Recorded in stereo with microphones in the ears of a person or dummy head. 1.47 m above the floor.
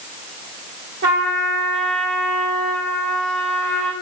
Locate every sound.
1.0 s a trumpet: 25° right (ahead or behind), 1.2 m